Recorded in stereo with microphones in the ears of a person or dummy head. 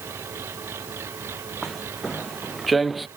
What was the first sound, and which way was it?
An engine running, 10° right (ahead or behind).